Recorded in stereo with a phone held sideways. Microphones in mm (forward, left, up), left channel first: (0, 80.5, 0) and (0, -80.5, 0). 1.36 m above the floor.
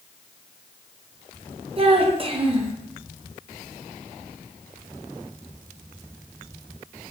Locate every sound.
1.8 s a child speaking: 35° right (ahead or behind), 0.6 m